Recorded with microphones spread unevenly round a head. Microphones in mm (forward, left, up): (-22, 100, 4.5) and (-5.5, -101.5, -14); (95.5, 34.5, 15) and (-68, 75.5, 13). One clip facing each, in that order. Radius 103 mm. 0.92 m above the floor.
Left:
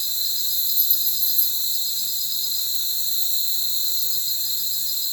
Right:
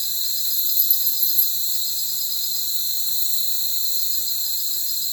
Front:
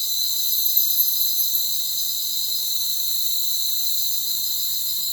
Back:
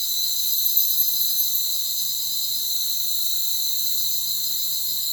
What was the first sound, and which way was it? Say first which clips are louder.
An insect: even, front 1 dB; 35° right.